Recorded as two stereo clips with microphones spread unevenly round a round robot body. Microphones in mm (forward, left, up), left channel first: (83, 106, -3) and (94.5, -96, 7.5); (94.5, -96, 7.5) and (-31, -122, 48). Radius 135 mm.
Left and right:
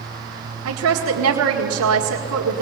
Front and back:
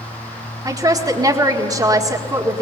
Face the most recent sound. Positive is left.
turn(degrees=-105)